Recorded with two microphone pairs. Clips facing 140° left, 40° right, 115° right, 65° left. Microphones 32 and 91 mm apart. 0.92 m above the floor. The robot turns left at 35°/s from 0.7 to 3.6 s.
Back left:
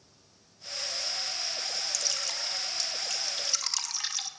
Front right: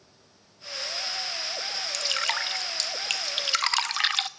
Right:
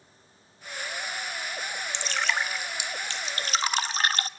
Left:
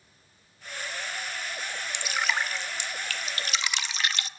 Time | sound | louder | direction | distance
1.9 | dripping | front right 7 dB, even | 5° right | 0.9 m